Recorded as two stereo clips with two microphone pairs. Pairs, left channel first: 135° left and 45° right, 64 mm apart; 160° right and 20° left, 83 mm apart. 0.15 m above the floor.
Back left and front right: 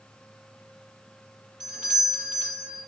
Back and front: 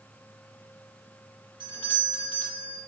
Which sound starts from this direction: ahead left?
A doorbell, at 1.6 s.